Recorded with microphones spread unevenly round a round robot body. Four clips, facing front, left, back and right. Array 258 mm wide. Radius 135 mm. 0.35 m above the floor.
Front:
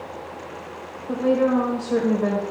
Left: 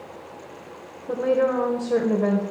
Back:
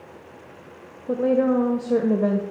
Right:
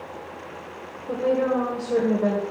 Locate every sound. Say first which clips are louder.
1.1 s a woman speaking: left 1 dB, even; 175° left, 1.6 m